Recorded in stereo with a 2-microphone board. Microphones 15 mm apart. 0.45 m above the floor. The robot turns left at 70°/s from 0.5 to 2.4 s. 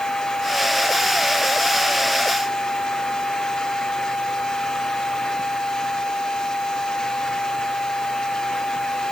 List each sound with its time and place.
Only background noise.